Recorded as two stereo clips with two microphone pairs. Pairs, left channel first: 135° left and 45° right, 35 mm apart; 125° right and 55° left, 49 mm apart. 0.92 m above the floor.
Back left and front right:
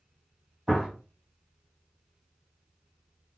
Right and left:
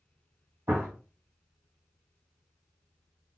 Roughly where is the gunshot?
Ahead left.